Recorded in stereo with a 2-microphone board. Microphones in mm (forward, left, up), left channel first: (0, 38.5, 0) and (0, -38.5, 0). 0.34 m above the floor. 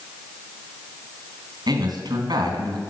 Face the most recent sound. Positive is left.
turn(degrees=-65)  # may be behind; listen again after turning